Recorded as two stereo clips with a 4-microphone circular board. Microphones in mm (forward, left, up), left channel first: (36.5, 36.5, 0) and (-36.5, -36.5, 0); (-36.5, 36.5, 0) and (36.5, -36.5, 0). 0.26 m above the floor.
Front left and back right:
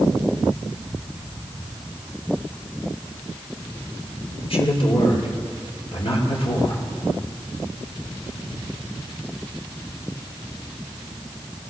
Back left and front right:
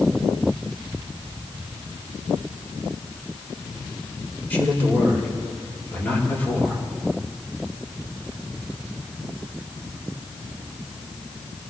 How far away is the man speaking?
About 5 m.